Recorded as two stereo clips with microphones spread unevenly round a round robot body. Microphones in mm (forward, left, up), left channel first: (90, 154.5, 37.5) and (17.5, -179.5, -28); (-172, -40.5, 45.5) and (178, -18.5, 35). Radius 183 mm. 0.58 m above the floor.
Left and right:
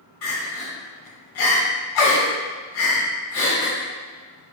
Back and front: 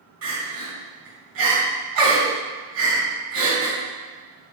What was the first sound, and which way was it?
Crying, 55° left.